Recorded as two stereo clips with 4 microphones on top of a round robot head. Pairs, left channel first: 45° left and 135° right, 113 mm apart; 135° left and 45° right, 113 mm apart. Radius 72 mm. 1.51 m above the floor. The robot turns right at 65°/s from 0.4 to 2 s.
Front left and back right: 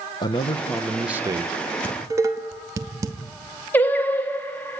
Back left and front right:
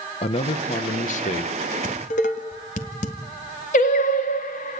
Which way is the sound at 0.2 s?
100° left.